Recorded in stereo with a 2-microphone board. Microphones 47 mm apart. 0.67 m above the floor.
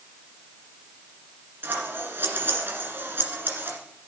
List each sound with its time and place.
1.6 s scissors: 50° right (ahead or behind), 1.8 m